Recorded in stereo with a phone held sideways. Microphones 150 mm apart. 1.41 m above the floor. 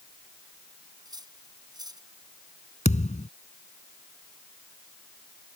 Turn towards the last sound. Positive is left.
turn(degrees=50)  # may be behind; listen again after turning